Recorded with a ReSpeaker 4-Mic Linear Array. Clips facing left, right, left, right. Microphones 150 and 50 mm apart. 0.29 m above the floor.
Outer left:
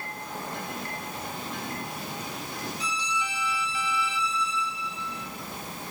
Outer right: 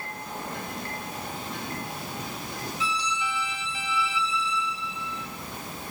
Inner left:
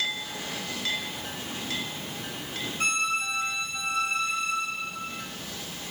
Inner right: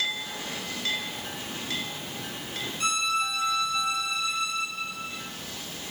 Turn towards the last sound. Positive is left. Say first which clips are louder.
# outer right 4 dB, inner right 1 dB
turn(degrees=40)  # may be behind; listen again after turning